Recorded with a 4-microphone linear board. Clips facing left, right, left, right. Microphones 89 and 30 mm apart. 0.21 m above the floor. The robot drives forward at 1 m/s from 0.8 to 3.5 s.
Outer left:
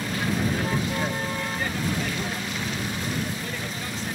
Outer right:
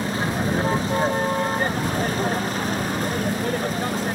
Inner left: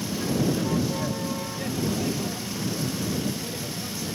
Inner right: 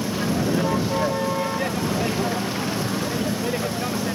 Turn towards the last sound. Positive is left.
turn(degrees=-45)  # may be behind; listen again after turning